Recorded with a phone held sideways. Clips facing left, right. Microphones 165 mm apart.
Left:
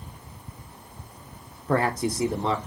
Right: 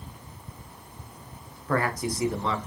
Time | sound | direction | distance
1.7 | a man speaking | 25° left (ahead or behind) | 0.5 m